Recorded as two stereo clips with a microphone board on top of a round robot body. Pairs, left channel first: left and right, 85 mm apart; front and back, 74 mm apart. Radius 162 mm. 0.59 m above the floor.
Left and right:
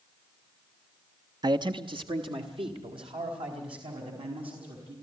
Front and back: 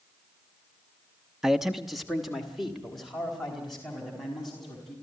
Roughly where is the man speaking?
Right.